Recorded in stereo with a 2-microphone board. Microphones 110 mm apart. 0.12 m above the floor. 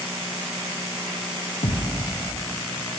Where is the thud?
90° left, 2.5 m.